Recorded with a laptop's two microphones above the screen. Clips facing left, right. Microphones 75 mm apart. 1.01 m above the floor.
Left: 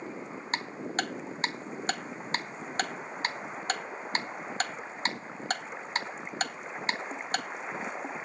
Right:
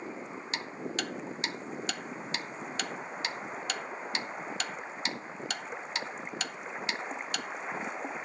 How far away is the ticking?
About 0.8 m.